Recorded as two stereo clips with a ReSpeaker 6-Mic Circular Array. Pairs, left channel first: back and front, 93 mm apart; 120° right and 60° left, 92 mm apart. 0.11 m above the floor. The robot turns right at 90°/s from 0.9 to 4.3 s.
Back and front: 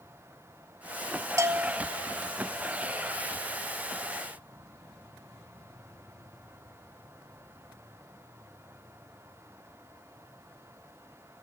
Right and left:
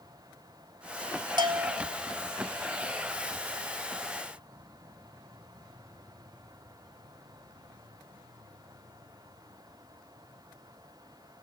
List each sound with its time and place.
1.4 s a bell: 50° left, 0.6 m; by 1.9 s 95° left, 0.6 m